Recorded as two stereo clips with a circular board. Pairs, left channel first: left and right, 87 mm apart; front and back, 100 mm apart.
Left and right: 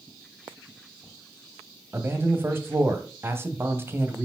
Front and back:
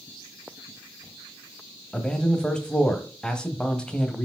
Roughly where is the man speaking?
Right.